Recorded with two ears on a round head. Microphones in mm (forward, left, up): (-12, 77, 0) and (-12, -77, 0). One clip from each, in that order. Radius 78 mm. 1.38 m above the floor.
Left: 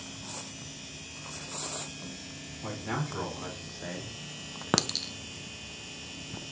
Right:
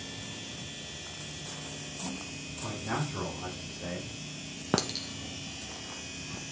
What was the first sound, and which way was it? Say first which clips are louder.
A man speaking: even; 55° left (ahead or behind).